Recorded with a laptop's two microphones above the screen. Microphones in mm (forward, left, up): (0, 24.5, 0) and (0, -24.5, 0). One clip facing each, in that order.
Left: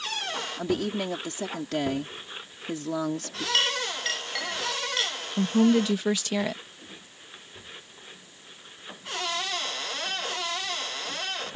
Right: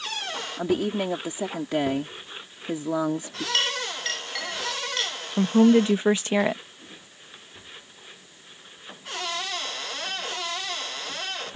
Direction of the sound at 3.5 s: Centre (ahead or behind).